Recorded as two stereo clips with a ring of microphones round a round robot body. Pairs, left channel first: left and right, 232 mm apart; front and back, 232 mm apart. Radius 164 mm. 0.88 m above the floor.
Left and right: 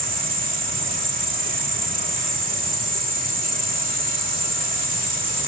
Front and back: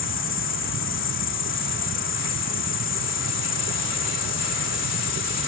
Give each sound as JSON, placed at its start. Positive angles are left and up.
{"t": 0.0, "sound": "an insect", "azimuth_deg": -40}